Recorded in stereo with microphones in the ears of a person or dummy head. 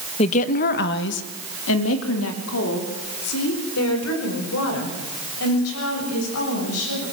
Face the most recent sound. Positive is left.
turn(degrees=80)